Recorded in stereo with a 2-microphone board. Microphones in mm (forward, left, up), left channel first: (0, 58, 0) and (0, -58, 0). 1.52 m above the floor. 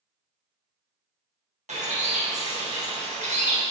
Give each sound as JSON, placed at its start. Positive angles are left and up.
{"t": 1.7, "sound": "a bird", "side_deg": -85, "distance_m": 1.4}